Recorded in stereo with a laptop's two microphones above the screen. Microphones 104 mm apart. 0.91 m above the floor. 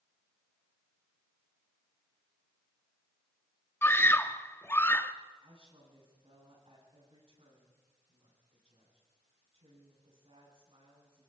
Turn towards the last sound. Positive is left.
turn(degrees=-65)  # may be behind; listen again after turning